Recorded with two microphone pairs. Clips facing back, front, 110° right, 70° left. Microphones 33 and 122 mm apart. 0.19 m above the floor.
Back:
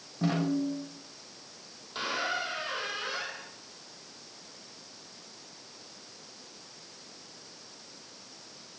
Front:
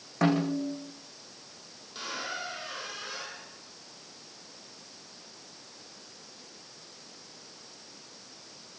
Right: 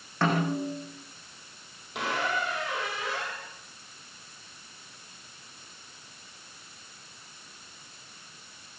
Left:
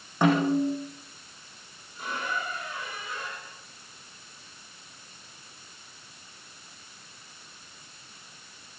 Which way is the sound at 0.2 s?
5° right.